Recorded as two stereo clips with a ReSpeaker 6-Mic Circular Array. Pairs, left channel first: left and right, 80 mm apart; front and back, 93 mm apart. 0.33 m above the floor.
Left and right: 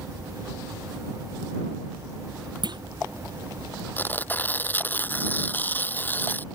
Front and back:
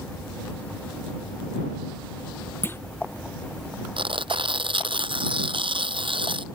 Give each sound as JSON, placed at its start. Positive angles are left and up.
{"t": 2.6, "sound": "a clunk", "azimuth_deg": -65}
{"t": 4.0, "sound": "tearing paper", "azimuth_deg": 155}